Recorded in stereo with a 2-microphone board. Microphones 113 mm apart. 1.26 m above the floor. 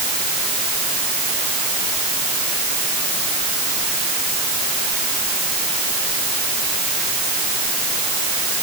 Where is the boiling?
No boiling in this recording.